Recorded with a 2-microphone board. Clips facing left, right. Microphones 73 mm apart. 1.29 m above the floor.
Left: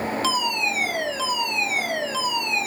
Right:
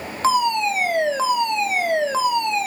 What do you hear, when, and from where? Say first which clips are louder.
0.2 s a fire alarm: right 11 dB; 35° right (ahead or behind), 2.5 m